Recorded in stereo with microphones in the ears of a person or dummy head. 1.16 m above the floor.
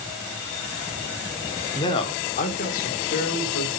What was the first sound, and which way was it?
A man speaking, 25° left (ahead or behind).